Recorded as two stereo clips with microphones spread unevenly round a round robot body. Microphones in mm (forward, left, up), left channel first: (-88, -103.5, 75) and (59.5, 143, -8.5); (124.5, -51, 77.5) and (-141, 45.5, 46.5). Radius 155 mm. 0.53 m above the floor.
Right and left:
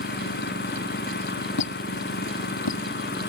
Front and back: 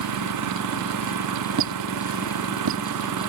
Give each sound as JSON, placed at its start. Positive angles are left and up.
{"t": 0.0, "sound": "an engine running", "azimuth_deg": -175}
{"t": 1.6, "sound": "a squeak", "azimuth_deg": -155}